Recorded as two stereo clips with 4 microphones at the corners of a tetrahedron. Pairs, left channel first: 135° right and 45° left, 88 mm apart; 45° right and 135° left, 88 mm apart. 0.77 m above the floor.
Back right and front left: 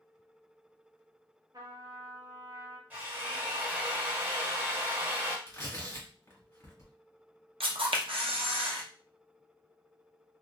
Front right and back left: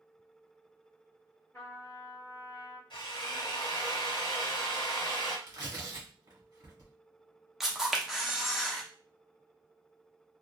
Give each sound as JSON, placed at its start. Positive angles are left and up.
{"t": 1.5, "sound": "a trumpet", "azimuth_deg": 10, "distance_m": 1.0}
{"t": 2.9, "sound": "a drill", "azimuth_deg": -25, "distance_m": 1.2}
{"t": 5.5, "sound": "tearing paper", "azimuth_deg": 175, "distance_m": 1.2}
{"t": 7.6, "sound": "a camera shutter", "azimuth_deg": 50, "distance_m": 0.6}